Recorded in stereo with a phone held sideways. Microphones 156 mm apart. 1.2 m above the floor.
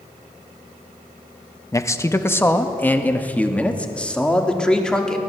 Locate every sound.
1.7 s a man speaking: 20° left (ahead or behind), 1.4 m; by 5.2 s 5° left (ahead or behind), 3 m